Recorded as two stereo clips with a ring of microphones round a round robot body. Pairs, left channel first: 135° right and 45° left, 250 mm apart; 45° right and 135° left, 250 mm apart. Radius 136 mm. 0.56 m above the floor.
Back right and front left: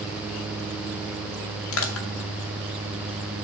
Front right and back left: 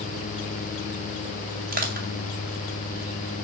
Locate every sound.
1.7 s crushing: 170° right, 2.5 m